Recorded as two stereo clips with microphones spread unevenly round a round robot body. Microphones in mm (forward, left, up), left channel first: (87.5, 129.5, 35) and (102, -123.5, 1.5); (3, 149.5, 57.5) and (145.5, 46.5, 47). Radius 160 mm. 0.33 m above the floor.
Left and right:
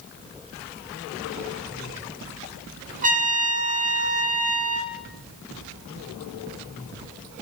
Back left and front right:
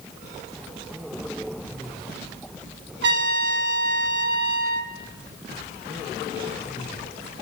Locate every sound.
3.0 s a trumpet: 25° right, 0.9 m